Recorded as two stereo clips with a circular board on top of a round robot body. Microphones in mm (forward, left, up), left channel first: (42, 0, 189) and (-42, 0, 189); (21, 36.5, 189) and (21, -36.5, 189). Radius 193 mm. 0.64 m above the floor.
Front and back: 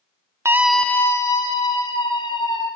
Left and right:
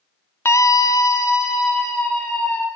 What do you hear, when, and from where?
0.5 s a scream: 130° left, 0.7 m; by 2.7 s 35° left, 3 m